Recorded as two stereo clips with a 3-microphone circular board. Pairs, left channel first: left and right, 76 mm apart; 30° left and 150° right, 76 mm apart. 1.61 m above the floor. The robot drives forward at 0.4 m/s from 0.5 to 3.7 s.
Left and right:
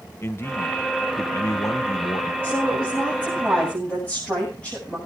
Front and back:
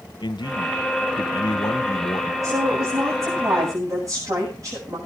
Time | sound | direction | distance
0.2 | a man speaking | 35° left | 1.3 m
2.4 | a woman speaking | 165° left | 8 m